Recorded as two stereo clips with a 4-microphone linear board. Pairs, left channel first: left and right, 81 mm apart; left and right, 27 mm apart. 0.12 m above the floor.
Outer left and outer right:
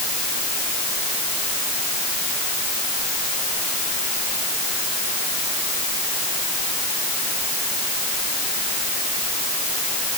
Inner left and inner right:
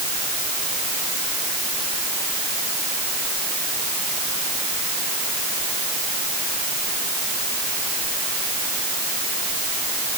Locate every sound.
Only background noise.